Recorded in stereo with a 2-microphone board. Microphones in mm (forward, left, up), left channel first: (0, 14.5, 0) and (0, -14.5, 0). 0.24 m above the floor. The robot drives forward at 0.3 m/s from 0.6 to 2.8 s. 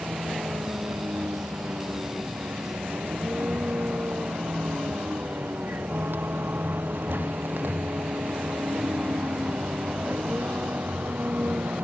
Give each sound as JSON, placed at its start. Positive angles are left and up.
{"t": 0.0, "sound": "a vehicle", "side_deg": -75}